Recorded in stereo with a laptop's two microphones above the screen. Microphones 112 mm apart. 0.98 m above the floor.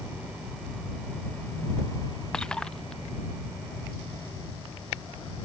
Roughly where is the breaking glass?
Centre.